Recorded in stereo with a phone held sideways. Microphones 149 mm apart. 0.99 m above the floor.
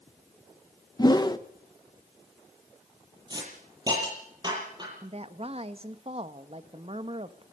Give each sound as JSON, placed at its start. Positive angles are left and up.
{"t": 1.0, "sound": "a whoosh", "side_deg": 30, "distance_m": 1.1}
{"t": 3.3, "sound": "a hiss", "side_deg": -30, "distance_m": 7.5}
{"t": 5.0, "sound": "a woman speaking", "side_deg": -45, "distance_m": 1.2}